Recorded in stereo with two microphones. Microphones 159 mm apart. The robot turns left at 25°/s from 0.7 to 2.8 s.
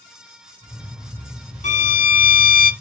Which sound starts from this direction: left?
A violin, at 1.6 s.